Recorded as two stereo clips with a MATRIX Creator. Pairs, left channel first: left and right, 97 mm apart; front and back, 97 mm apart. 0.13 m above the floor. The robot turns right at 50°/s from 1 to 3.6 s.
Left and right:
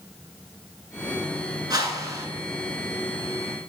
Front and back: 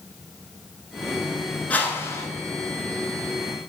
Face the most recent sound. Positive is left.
turn(degrees=25)